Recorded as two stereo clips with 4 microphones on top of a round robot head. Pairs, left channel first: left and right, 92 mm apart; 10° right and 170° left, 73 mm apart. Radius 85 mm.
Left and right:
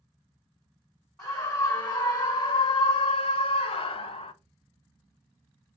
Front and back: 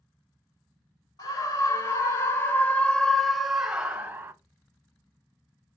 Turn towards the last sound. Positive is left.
turn(degrees=115)